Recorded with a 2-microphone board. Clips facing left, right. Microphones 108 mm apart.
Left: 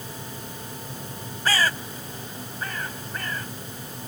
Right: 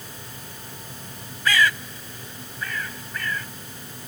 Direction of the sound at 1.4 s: 35° left (ahead or behind).